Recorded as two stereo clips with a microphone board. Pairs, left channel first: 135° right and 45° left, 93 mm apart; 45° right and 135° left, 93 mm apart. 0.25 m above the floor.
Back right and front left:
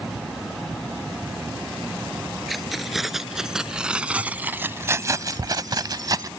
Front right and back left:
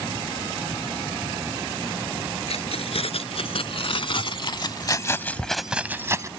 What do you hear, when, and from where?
2.5 s keys jangling: 45° right; by 6.3 s 85° left